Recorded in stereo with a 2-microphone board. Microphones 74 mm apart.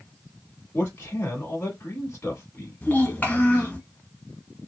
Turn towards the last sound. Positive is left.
turn(degrees=25)  # may be behind; listen again after turning